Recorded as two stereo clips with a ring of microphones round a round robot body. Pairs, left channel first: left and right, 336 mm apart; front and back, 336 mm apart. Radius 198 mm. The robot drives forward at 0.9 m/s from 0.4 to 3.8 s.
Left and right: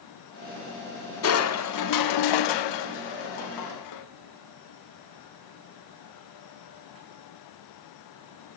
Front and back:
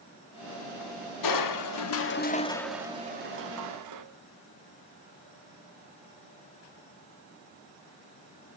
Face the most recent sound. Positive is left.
turn(degrees=135)